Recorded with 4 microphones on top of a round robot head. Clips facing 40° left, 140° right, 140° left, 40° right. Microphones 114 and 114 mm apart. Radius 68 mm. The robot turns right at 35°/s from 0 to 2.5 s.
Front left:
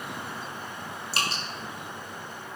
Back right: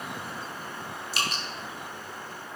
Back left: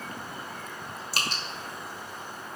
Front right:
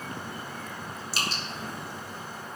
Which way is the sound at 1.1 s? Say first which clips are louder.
Front left 1 dB, even; 95° left.